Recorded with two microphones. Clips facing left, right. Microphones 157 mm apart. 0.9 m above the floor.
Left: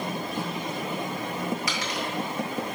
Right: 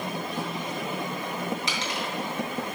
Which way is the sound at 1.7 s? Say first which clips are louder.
Left 1 dB; 25° right (ahead or behind).